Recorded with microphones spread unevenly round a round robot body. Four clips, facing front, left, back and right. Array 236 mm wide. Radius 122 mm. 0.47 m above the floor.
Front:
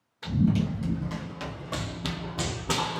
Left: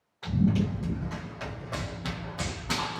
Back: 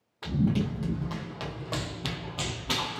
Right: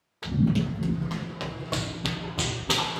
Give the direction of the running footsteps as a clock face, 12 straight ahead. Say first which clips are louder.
Right 1 dB, front 2 dB; 4 o'clock.